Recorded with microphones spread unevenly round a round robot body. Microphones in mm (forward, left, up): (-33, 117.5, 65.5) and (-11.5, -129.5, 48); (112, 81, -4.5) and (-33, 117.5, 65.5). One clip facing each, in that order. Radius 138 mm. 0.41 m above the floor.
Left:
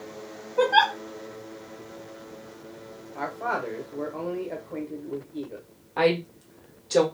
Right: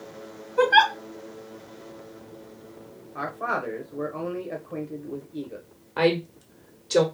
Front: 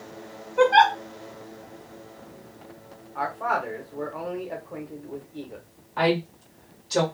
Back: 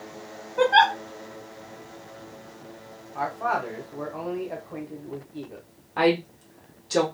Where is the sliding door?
I don't hear a sliding door.